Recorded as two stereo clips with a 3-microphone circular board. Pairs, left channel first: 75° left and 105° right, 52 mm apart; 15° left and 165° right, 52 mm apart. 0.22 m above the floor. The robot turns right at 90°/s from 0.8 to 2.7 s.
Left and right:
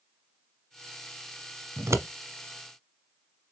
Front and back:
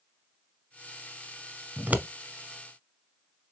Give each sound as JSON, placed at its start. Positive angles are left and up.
{"t": 1.8, "sound": "scissors", "azimuth_deg": -120, "distance_m": 0.7}